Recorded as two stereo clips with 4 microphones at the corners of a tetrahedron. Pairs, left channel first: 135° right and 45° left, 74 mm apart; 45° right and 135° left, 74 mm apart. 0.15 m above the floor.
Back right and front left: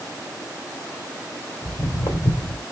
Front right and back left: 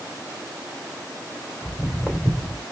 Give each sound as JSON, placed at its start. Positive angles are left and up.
{"t": 1.6, "sound": "footsteps", "azimuth_deg": -115, "distance_m": 2.5}